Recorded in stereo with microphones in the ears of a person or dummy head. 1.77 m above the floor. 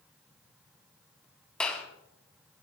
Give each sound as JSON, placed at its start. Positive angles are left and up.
{"t": 1.6, "sound": "a clap", "side_deg": 5, "distance_m": 4.0}